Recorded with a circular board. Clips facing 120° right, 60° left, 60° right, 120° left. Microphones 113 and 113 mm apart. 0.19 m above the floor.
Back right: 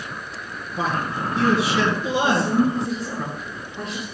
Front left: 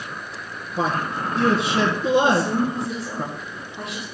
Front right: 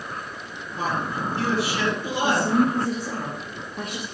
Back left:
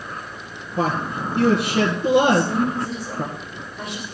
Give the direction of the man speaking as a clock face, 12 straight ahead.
8 o'clock.